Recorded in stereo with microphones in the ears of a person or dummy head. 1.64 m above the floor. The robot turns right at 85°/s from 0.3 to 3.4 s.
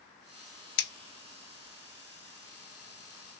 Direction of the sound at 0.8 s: 65° left (ahead or behind).